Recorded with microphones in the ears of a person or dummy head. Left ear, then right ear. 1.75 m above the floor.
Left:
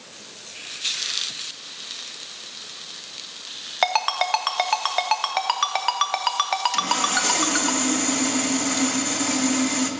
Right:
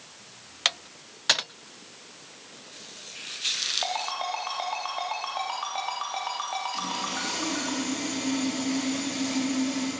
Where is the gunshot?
No gunshot in this recording.